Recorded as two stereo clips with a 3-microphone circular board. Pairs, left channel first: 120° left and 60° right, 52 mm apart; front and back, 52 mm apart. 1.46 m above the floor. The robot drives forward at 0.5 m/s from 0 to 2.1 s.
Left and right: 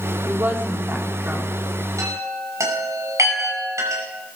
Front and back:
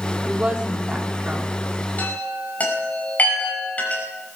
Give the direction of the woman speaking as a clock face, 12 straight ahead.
4 o'clock.